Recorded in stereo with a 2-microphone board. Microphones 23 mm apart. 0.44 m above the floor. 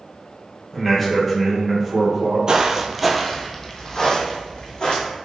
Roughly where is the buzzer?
I don't hear a buzzer.